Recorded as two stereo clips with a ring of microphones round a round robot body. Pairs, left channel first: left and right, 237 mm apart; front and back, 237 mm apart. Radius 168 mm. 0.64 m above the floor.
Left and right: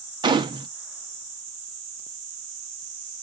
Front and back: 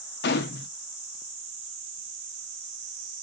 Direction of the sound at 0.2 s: 25° right.